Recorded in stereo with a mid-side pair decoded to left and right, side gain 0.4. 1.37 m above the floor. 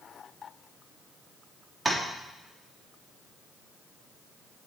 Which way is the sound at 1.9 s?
20° right.